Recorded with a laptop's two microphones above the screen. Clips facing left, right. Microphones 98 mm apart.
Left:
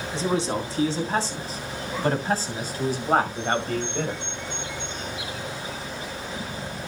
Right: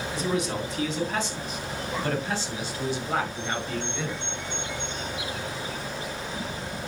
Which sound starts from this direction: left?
A man speaking, at 0.1 s.